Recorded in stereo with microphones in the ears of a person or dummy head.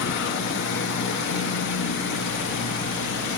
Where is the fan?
60° left (ahead or behind), 1.5 m.